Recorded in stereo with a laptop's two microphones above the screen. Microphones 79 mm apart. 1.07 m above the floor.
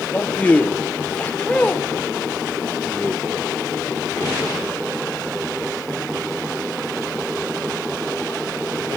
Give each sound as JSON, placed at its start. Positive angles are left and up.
{"t": 0.1, "sound": "a man speaking", "side_deg": 20, "distance_m": 0.7}